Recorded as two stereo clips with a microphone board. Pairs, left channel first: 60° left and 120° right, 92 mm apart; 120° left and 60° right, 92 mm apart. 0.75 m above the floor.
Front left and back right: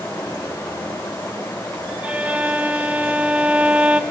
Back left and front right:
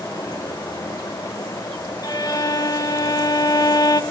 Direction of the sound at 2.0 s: 165° left.